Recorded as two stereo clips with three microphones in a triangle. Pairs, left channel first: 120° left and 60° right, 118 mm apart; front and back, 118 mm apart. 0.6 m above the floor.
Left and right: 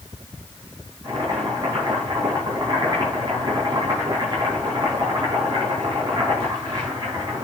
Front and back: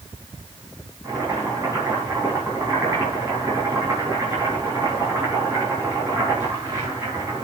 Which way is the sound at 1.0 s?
110° right.